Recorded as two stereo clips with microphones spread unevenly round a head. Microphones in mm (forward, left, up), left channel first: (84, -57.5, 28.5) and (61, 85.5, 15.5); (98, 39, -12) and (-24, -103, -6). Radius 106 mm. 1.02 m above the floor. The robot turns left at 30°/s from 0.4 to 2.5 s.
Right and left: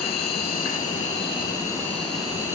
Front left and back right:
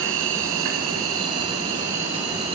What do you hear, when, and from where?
0.0 s an insect: 120° right, 3 m; by 2.6 s straight behind, 3 m